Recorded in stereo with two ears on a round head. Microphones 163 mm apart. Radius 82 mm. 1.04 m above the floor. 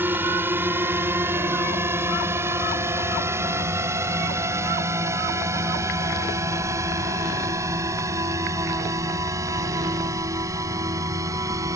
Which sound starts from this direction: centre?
A drone, at 0.0 s.